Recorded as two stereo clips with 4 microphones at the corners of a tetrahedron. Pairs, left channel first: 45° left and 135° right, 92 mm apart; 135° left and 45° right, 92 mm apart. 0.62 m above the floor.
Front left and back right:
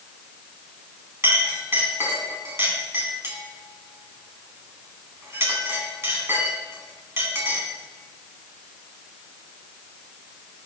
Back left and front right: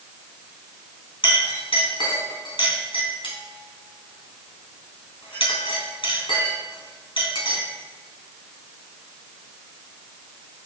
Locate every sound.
1.2 s a clink: 165° left, 3.5 m